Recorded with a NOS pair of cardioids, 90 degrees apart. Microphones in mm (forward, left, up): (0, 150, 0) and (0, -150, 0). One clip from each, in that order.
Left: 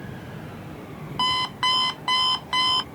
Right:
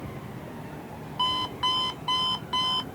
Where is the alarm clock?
50° left.